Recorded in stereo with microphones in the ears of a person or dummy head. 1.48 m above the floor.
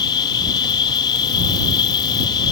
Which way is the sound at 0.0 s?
30° left (ahead or behind).